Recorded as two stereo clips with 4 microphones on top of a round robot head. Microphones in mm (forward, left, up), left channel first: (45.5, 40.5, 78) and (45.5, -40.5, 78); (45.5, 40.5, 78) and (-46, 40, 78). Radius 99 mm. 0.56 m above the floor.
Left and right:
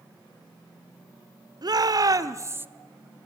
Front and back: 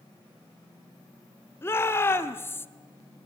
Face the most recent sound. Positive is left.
turn(degrees=-45)